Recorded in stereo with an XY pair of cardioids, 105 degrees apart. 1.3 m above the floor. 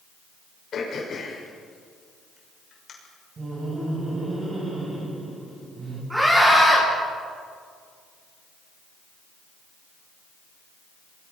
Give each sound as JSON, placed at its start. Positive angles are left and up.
{"t": 0.7, "sound": "throat clearing", "azimuth_deg": 50, "distance_m": 6.5}
{"t": 3.4, "sound": "laughter", "azimuth_deg": -35, "distance_m": 8.5}
{"t": 6.1, "sound": "a scream", "azimuth_deg": -10, "distance_m": 10.0}